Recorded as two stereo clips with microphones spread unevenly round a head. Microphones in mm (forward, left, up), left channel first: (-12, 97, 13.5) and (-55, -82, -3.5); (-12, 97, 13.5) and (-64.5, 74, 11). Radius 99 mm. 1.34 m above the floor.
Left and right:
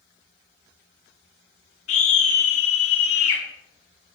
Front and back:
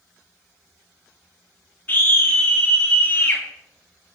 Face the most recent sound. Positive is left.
turn(degrees=80)